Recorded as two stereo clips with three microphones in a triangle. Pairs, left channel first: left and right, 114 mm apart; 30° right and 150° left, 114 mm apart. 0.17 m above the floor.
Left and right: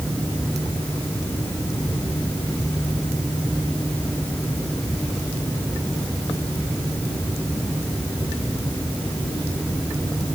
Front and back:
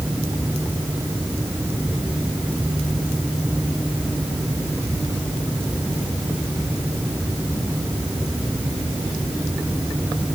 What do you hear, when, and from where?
Only background noise.